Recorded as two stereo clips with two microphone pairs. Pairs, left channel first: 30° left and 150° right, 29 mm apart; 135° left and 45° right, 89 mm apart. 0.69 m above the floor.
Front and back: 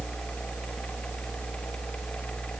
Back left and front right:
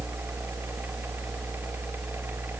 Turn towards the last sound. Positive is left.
No sound to turn to.